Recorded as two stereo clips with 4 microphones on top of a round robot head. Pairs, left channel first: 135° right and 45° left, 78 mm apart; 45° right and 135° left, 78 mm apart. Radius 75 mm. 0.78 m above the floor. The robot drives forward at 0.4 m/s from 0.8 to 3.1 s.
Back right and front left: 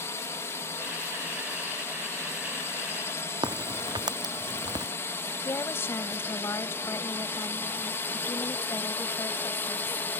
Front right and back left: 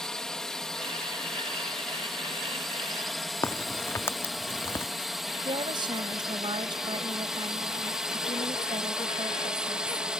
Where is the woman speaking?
165° left.